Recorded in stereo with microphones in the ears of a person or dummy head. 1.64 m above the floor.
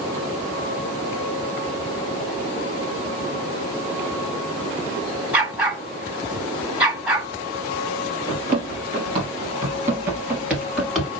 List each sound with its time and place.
5.3 s a dog barking: 10° right (ahead or behind), 2 m
8.3 s running footsteps: 30° right (ahead or behind), 1.9 m; by 11.1 s centre (ahead or behind), 2 m